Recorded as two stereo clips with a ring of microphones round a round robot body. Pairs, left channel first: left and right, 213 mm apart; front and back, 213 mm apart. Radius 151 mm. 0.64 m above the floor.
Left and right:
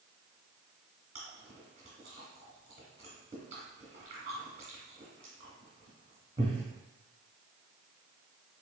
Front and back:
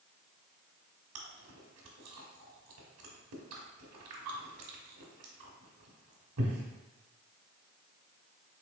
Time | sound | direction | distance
1.1 | chewing | 160° right | 0.9 m